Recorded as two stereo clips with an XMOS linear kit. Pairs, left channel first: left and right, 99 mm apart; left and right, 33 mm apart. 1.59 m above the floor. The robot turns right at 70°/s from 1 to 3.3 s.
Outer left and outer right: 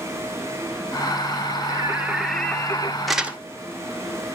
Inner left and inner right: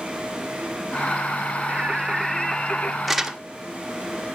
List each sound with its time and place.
1.7 s singing: 40° right, 0.9 m; by 3.0 s 50° left, 0.9 m
3.1 s crumpling: centre (ahead or behind), 0.9 m; by 3.4 s 15° right (ahead or behind), 0.9 m